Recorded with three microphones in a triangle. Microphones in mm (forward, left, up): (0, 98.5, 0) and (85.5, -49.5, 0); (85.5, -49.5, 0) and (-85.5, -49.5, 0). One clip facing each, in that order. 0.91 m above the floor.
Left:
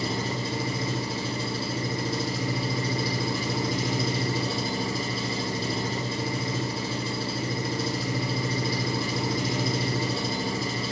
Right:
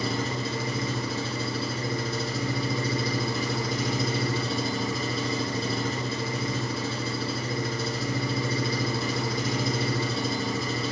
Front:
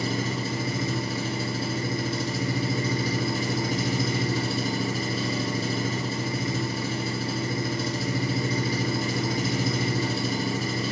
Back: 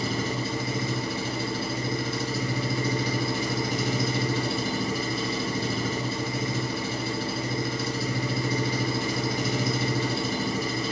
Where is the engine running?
55° left, 8.5 m.